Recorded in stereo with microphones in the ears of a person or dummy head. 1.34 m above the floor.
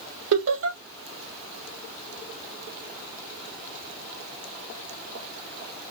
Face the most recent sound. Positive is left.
turn(degrees=-65)  # may be behind; listen again after turning